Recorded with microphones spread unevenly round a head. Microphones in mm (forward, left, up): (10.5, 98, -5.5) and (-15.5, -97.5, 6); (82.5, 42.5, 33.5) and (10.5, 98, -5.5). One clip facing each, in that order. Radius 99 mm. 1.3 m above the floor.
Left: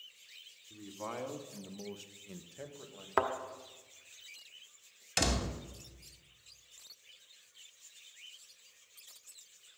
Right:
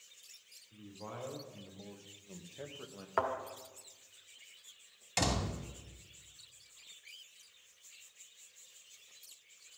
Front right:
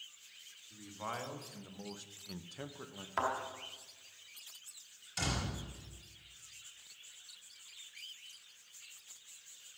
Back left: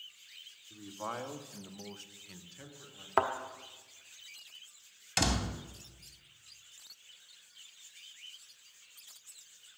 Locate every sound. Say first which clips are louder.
0.7 s a man speaking: left 5 dB, back left 3 dB; 80° left, 2.5 m; by 3.1 s 40° right, 1.2 m
3.2 s a thud: left 2 dB, back left 5 dB; 110° left, 1.2 m
5.2 s a door slam: left 1 dB, back left 6 dB; 160° left, 1.0 m